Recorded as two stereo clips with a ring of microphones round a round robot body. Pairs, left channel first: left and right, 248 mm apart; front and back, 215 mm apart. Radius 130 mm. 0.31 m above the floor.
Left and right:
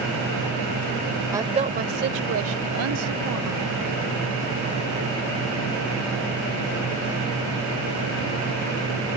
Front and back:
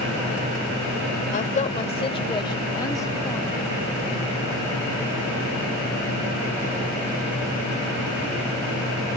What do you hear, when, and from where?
1.3 s a woman speaking: 20° right; by 3.8 s 80° right